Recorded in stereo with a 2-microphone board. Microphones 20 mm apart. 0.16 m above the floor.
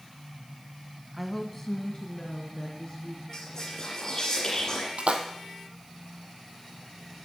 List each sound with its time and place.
1.1 s a woman speaking: 10° right (ahead or behind), 1.1 m; by 3.2 s 50° left (ahead or behind), 2.5 m
3.3 s whispering: 35° left (ahead or behind), 2 m
5.0 s a splash: 70° right (ahead or behind), 1.3 m